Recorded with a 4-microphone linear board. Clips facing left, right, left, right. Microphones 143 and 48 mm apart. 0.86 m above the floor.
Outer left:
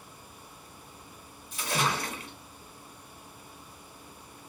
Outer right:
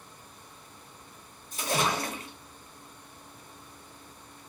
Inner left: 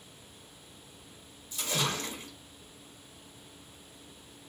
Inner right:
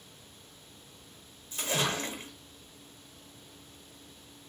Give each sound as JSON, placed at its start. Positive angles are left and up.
{"t": 1.5, "sound": "a splash", "side_deg": -45, "distance_m": 1.5}